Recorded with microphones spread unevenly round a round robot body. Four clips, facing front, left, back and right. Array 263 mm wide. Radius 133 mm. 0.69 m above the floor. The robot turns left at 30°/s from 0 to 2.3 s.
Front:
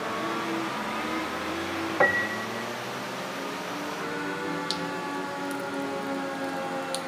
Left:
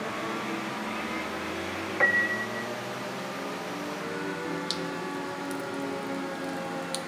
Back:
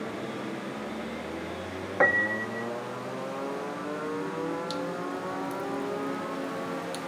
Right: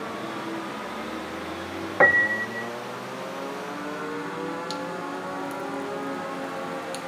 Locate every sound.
2.0 s a piano: 80° right; by 2.7 s 90° right
4.7 s dripping: straight ahead